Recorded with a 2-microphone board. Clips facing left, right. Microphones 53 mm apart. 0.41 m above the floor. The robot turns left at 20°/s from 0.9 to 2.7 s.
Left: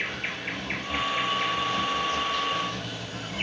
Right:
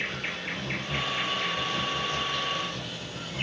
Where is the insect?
160° left, 1.0 m; by 3.4 s 125° left, 1.0 m.